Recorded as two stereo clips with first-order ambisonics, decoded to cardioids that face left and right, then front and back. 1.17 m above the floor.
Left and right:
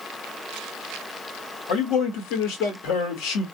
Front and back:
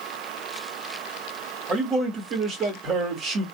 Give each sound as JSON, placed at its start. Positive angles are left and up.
{"t": 1.7, "sound": "a man speaking", "azimuth_deg": 120, "distance_m": 1.9}